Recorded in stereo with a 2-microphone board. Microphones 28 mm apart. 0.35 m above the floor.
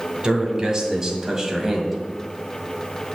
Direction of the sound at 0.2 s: 25° right (ahead or behind).